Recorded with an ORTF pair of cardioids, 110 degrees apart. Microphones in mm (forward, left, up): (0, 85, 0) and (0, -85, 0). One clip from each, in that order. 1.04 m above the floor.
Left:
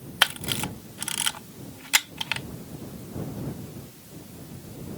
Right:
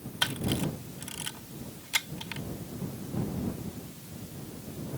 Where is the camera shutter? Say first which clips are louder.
Left 7 dB; 60° left.